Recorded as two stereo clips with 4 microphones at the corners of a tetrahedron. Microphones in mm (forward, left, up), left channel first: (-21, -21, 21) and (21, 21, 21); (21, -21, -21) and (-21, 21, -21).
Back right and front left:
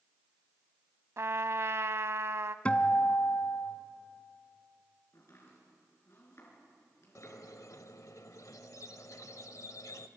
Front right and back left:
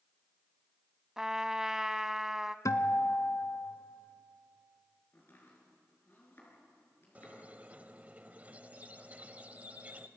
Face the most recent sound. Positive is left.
turn(degrees=-160)